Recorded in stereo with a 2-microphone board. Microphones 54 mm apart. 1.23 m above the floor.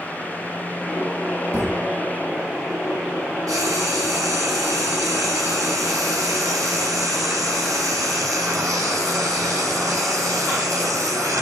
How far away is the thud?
About 6.5 m.